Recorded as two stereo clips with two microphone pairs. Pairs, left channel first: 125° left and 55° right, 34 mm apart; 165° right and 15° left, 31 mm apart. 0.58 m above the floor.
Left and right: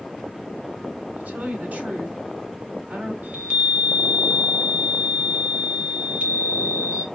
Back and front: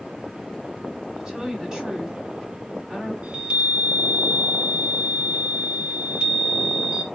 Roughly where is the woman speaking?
Ahead right.